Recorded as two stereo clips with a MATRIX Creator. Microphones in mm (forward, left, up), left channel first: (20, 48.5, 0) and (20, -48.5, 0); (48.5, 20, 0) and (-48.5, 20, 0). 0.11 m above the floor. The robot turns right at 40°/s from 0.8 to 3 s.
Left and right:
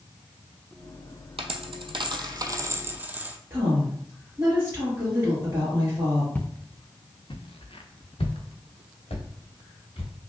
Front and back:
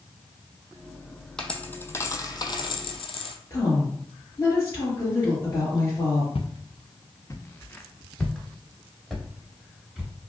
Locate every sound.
1.4 s a dropped coin: 85° right, 0.5 m; by 3.4 s 20° right, 0.5 m
3.5 s a woman speaking: 35° right, 2 m
6.3 s footsteps: 15° left, 0.7 m; by 10.1 s 100° left, 2.5 m